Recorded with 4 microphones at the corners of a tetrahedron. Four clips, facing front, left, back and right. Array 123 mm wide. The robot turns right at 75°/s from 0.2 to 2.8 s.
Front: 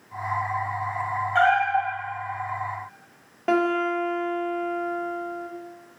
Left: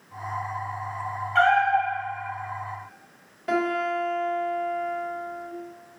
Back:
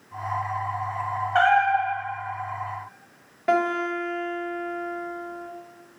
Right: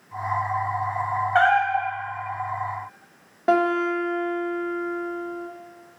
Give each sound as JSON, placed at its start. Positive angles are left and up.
{"t": 1.4, "sound": "a cat meowing", "azimuth_deg": -120, "distance_m": 1.2}
{"t": 3.5, "sound": "a guitar", "azimuth_deg": -75, "distance_m": 1.2}